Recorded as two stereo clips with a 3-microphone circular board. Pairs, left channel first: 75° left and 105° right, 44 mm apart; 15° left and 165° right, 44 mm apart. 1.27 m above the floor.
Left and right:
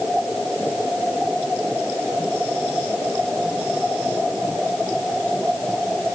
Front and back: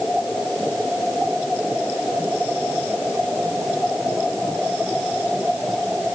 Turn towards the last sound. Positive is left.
No sound to turn to.